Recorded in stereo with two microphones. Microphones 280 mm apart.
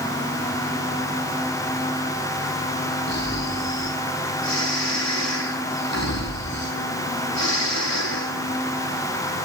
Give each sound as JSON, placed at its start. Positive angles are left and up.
{"t": 3.1, "sound": "snoring", "side_deg": 70, "distance_m": 5.0}